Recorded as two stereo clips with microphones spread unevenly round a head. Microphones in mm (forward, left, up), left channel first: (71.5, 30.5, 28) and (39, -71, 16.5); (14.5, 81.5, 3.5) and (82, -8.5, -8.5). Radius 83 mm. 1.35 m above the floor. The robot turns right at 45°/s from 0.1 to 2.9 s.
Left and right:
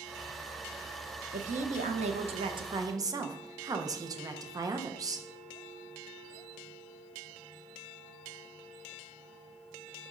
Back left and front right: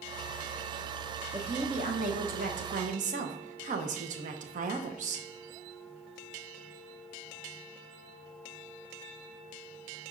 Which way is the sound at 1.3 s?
120° right.